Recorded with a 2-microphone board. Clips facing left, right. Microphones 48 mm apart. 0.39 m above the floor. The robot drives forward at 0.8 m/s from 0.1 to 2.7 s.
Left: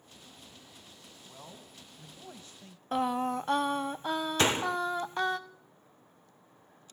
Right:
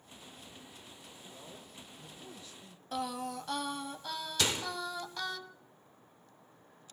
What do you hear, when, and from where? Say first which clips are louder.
1.2 s a man speaking: left 2 dB; 35° left (ahead or behind), 3 m; by 2.8 s 50° left (ahead or behind), 2 m
2.9 s singing: left 7 dB; 35° left (ahead or behind), 0.5 m
4.4 s a door slam: left 6 dB; 35° left (ahead or behind), 0.5 m